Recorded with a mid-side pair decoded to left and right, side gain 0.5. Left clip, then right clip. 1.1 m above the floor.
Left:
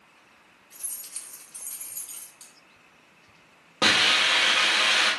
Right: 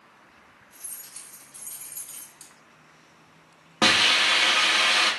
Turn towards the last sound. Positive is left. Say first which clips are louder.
# right 1 dB
turn(degrees=-25)